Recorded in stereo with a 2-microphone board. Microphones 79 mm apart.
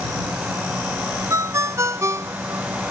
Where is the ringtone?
40° right (ahead or behind).